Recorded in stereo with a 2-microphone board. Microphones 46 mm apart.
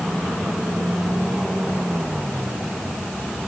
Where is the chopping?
No chopping in this recording.